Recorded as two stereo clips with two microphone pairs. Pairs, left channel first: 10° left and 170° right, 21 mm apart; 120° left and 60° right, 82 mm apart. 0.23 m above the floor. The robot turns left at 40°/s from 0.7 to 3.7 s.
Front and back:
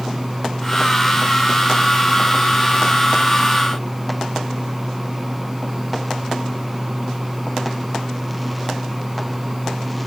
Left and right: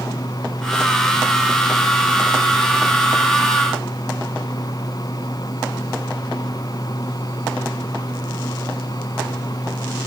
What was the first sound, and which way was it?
Only background noise.